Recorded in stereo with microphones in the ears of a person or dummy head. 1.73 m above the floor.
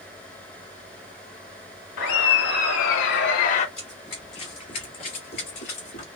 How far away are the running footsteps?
About 1.8 m.